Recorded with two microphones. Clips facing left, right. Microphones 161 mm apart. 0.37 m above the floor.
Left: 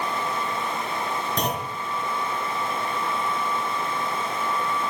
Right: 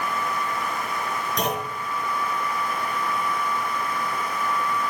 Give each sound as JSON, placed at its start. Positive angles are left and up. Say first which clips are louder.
{"t": 1.4, "sound": "a clunk", "louder": "right 1 dB", "side_deg": 30, "distance_m": 3.0}